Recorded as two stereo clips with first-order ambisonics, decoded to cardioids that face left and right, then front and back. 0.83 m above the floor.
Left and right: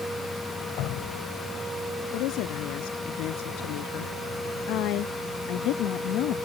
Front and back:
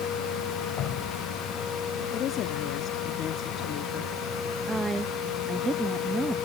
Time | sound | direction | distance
0.8 | dripping | 50° left | ?
2.1 | a woman speaking | 55° left | ?
4.7 | a woman speaking | 105° left | ?